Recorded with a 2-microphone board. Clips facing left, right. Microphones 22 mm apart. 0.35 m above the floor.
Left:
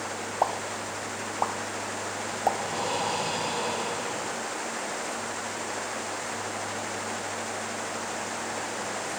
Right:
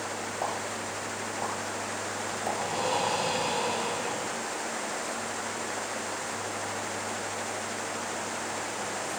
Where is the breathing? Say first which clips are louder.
Even; 10° left (ahead or behind), 5 m.